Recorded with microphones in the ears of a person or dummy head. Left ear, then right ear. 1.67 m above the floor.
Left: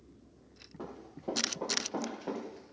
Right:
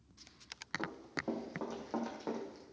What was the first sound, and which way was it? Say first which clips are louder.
Running footsteps: left 2 dB; 70° right (ahead or behind).